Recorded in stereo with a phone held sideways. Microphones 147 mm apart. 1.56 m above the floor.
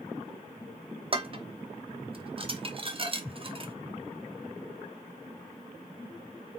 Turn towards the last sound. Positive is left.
turn(degrees=-40)  # may be behind; listen again after turning